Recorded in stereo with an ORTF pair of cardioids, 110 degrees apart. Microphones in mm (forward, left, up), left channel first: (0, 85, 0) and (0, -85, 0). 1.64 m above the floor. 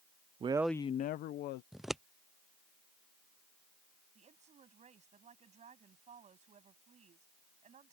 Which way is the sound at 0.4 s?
35° right.